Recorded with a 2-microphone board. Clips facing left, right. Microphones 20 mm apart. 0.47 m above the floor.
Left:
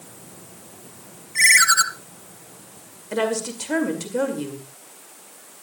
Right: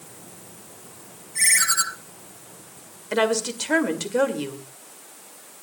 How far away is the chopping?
No chopping in this recording.